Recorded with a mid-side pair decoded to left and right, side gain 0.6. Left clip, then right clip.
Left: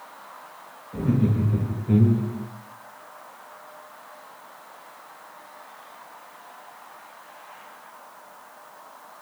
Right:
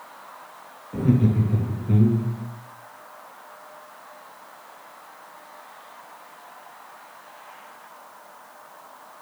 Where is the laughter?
25° right, 1.3 m; by 2.5 s 50° left, 0.6 m.